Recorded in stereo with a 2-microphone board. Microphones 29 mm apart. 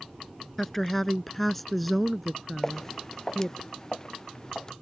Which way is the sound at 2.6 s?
15° left (ahead or behind).